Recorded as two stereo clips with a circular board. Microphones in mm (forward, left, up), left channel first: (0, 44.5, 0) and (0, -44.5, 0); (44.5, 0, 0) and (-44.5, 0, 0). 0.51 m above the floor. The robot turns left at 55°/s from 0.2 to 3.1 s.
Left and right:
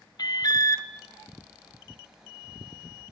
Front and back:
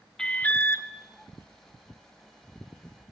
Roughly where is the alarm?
Left.